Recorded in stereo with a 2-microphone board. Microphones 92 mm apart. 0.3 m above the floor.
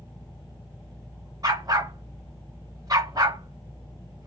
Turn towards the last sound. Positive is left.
turn(degrees=-45)  # may be behind; listen again after turning